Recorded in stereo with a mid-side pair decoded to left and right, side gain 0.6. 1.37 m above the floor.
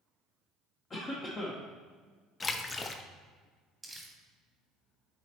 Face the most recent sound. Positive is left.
turn(degrees=-10)